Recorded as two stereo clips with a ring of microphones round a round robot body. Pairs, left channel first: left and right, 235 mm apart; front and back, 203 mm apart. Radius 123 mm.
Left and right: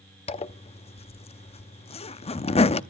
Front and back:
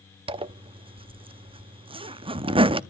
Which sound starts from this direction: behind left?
A zipper, at 0.3 s.